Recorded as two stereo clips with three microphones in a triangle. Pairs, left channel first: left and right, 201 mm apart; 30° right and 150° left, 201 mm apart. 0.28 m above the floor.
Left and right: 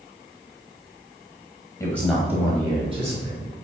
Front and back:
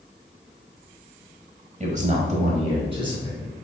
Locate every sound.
1.8 s a man speaking: 150° left, 1.1 m; by 3.5 s 140° right, 2.5 m